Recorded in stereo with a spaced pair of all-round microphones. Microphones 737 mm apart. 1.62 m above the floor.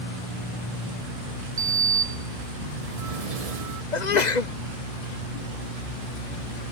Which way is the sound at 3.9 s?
70° left (ahead or behind).